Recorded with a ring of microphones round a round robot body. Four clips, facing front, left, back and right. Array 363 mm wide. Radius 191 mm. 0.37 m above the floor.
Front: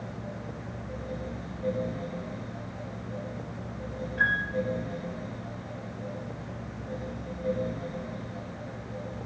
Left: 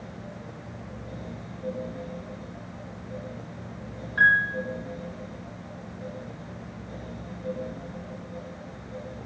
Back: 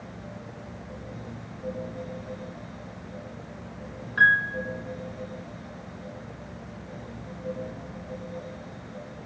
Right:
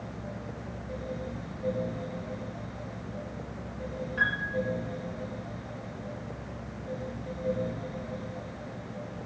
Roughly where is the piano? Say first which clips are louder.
Left 10 dB, back 7 dB; behind.